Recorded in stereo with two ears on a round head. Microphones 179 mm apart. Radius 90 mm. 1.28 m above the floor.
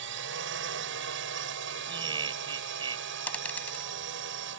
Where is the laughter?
25° right (ahead or behind).